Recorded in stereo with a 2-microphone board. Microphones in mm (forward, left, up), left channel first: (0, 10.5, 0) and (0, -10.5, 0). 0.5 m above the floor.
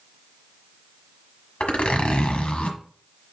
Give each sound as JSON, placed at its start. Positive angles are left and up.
{"t": 1.6, "sound": "a zipper", "side_deg": 80, "distance_m": 1.5}